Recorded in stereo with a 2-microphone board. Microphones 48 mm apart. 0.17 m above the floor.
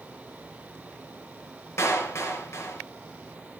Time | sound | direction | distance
1.8 | a clap | 65° left (ahead or behind) | 2.5 m